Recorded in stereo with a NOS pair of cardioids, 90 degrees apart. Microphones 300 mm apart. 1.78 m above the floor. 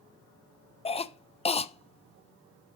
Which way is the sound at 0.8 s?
20° left.